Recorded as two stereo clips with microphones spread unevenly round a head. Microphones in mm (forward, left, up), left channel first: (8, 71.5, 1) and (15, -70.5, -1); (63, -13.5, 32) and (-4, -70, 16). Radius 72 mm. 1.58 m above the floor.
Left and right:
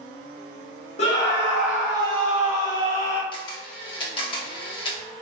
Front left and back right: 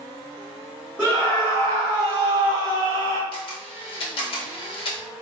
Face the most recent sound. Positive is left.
turn(degrees=35)